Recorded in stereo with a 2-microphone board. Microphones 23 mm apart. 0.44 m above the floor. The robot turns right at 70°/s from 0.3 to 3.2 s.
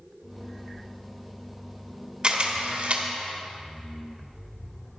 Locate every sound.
2.2 s a camera shutter: 35° right (ahead or behind), 1.2 m; by 3.0 s 55° right (ahead or behind), 1.2 m